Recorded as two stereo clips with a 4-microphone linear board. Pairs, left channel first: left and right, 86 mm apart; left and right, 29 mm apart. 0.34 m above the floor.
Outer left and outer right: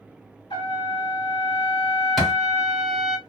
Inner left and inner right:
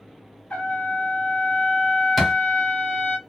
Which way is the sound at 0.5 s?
75° left (ahead or behind).